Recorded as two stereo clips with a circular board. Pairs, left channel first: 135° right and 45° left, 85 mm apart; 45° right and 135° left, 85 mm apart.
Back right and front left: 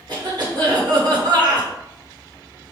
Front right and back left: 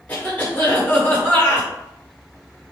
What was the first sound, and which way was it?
A cough, 25° left.